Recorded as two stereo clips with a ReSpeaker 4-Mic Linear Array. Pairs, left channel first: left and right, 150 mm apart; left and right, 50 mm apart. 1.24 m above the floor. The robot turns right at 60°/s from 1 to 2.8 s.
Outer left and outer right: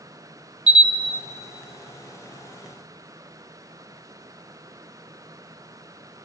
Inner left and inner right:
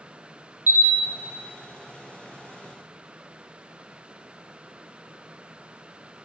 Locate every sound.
0.7 s a camera shutter: 45° right (ahead or behind), 0.7 m